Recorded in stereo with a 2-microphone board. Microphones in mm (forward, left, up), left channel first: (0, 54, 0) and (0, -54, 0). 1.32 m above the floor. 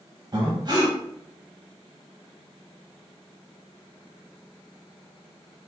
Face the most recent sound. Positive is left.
turn(degrees=-40)  # may be behind; listen again after turning